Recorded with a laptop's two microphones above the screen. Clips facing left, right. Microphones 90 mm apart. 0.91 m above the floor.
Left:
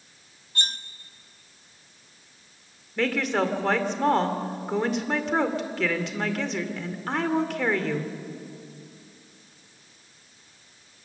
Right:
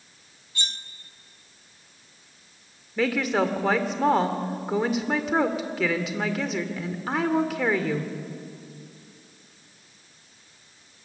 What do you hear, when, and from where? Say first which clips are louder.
0.6 s cutlery clinking: left 3 dB; 45° left (ahead or behind), 0.8 m
3.0 s a woman speaking: right 1 dB; 5° right (ahead or behind), 2.5 m